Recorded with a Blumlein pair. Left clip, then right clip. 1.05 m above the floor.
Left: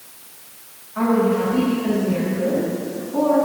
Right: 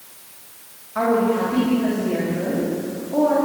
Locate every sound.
0.9 s a woman speaking: 30° right, 5.5 m; by 3.4 s 35° right, 6.5 m